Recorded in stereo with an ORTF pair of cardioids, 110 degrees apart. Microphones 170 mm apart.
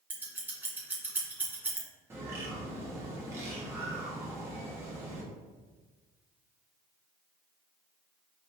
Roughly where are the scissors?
Ahead.